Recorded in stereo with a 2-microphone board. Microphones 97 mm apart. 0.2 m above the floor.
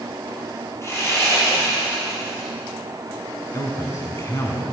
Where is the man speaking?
35° left (ahead or behind), 2 m.